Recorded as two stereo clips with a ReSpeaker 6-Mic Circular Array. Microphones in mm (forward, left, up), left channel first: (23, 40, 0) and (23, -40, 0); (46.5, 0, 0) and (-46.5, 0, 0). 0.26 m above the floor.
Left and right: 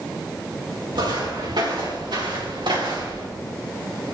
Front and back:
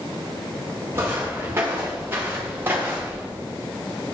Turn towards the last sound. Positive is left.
turn(degrees=-110)